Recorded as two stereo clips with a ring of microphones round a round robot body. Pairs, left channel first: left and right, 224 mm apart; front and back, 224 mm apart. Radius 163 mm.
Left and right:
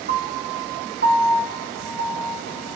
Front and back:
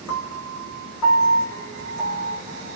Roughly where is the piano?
Ahead right.